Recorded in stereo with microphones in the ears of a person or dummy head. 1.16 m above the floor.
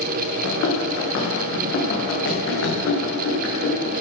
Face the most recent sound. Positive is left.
turn(degrees=65)  # may be behind; listen again after turning